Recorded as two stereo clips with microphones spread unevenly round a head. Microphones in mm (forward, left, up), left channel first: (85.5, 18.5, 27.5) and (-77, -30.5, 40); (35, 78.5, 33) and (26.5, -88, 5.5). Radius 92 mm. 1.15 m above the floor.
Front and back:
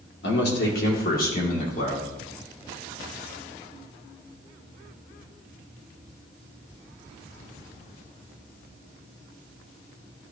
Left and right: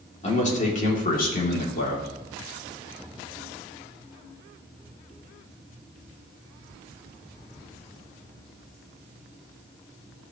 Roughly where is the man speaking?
Ahead left.